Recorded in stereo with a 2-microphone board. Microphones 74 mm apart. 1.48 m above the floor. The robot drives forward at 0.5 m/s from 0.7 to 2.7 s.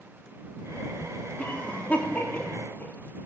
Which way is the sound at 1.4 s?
20° left (ahead or behind).